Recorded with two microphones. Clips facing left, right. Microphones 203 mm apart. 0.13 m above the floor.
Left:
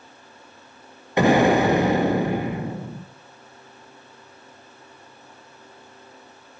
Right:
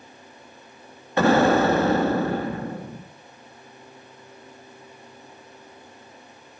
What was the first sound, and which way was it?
An explosion, 15° left (ahead or behind).